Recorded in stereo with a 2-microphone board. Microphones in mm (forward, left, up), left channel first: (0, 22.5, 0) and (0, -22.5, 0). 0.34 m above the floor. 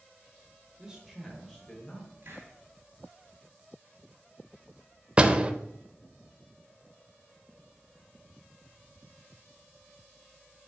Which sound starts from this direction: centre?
A man speaking, at 0.8 s.